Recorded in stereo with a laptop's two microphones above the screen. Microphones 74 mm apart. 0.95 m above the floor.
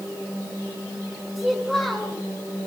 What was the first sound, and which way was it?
A child speaking, 5° left (ahead or behind).